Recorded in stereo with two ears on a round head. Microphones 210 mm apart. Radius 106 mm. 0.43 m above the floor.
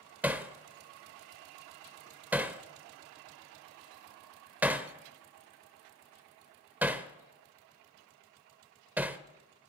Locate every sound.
0.2 s hammering: 10° right (ahead or behind), 0.8 m